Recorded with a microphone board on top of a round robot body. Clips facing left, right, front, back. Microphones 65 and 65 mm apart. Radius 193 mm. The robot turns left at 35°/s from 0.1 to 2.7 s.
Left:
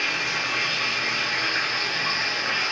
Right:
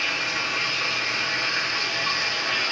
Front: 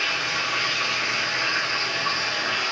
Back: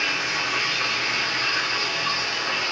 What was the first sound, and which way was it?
Running water, 110° left.